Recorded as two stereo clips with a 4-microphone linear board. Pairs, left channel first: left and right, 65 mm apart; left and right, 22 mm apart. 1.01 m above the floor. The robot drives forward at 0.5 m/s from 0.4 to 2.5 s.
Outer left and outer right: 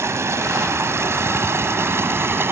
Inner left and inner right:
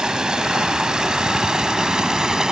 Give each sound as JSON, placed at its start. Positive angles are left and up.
{"t": 0.0, "sound": "running water", "side_deg": -50}